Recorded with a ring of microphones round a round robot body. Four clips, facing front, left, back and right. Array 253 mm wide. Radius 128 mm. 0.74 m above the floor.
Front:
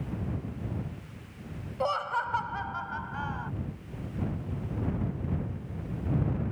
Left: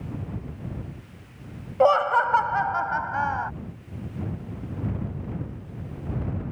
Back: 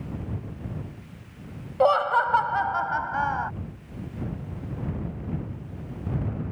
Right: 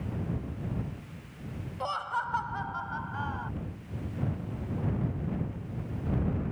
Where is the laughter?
120° left; by 3.5 s 135° left.